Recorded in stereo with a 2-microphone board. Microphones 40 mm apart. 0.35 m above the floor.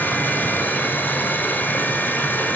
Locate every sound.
0.0 s running water: 60° left (ahead or behind), 1.3 m